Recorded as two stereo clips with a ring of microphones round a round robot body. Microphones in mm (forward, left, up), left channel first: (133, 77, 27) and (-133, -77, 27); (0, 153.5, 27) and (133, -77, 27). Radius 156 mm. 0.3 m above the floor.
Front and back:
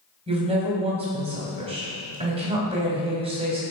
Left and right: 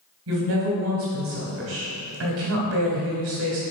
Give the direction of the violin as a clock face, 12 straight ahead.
I don't hear a violin.